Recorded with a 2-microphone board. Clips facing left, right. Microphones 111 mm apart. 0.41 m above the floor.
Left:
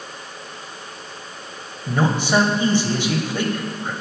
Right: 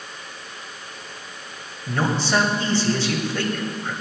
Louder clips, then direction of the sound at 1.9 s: Left 3 dB; 15° left (ahead or behind).